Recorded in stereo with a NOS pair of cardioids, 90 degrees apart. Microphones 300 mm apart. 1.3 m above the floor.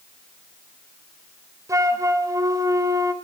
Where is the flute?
10° right, 2.5 m.